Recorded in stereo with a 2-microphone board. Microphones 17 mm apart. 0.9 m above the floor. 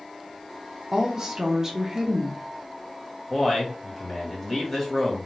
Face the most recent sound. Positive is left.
turn(degrees=15)  # may be behind; listen again after turning